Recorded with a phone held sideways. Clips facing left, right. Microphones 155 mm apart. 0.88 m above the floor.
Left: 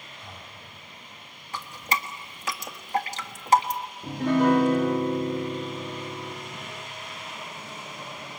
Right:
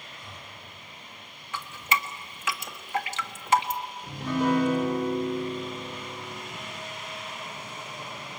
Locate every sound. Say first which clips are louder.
0.2 s breathing: left 1 dB; 65° left (ahead or behind), 2 m
1.5 s dripping: even; 35° left (ahead or behind), 1.4 m
4.0 s a piano: left 5 dB; 65° left (ahead or behind), 2.5 m